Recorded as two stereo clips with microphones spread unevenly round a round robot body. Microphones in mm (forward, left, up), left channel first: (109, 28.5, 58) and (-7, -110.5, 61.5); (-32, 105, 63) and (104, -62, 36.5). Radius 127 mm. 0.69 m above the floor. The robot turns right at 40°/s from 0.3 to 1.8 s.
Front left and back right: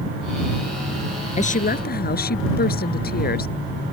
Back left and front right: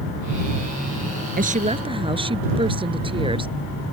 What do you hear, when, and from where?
1.4 s a woman speaking: straight ahead; by 3.5 s 15° left